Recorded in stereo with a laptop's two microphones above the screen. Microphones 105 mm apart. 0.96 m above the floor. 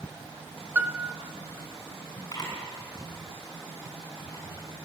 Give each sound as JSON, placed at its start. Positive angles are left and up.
{"t": 0.8, "sound": "a piano", "side_deg": -15, "distance_m": 0.9}
{"t": 2.3, "sound": "a camera shutter", "side_deg": 35, "distance_m": 5.5}